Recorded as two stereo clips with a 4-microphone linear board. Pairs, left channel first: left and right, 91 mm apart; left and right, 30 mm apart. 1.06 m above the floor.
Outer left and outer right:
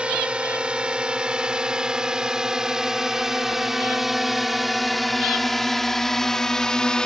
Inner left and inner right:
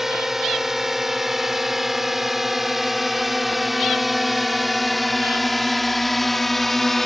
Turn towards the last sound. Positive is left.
turn(degrees=10)  # may be behind; listen again after turning